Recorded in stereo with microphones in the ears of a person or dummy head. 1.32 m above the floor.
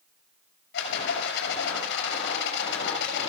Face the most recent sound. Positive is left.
turn(degrees=70)  # may be behind; listen again after turning